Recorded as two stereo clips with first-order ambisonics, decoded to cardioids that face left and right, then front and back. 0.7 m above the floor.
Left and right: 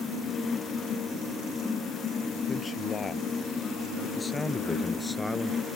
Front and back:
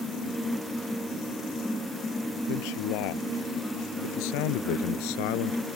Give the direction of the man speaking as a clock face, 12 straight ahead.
11 o'clock.